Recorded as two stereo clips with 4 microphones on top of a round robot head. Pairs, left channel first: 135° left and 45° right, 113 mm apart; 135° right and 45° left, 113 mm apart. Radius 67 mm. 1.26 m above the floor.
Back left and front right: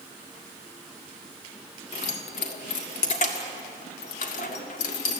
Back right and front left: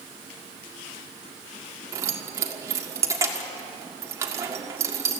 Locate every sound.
1.9 s keys jangling: 110° left, 1.7 m